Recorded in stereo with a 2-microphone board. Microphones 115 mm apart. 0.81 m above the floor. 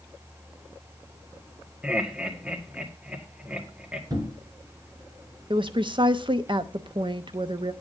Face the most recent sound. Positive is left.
turn(degrees=-45)  # may be behind; listen again after turning